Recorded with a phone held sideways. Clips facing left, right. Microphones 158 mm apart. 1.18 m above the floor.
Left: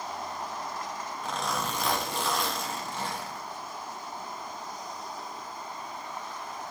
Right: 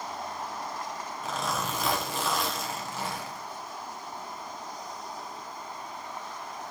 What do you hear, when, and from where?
1.2 s a zipper: centre (ahead or behind), 0.9 m